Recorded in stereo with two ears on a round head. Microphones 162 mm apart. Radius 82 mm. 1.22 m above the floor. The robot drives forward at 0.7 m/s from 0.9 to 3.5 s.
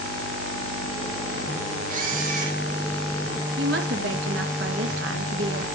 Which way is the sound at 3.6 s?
70° right (ahead or behind).